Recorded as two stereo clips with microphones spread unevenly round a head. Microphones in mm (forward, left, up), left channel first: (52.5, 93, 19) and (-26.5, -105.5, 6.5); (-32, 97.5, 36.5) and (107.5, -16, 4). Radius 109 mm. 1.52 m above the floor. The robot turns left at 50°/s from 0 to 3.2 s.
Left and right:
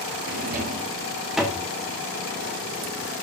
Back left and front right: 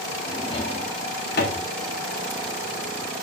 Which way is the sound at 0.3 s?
145° right.